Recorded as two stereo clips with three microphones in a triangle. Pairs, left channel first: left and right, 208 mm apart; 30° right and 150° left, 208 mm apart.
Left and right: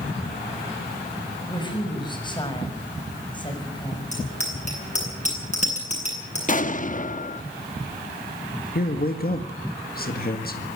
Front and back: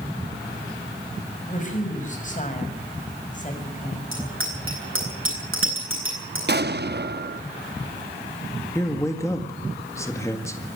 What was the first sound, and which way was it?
A woman speaking, 20° left.